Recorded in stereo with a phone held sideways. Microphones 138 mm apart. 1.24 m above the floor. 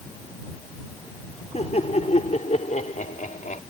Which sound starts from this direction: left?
Laughter, at 1.5 s.